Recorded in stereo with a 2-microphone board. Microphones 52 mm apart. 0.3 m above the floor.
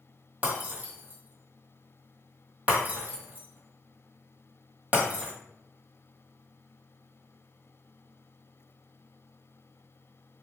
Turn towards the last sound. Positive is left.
turn(degrees=-30)  # may be behind; listen again after turning